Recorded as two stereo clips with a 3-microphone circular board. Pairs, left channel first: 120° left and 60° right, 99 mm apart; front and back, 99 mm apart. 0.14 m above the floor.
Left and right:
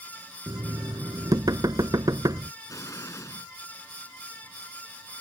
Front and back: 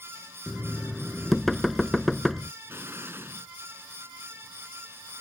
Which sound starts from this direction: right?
Knocking, at 0.5 s.